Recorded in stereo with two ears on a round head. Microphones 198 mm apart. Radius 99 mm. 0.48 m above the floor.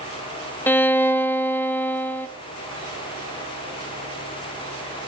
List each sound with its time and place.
0.7 s a violin: 10° left (ahead or behind), 0.8 m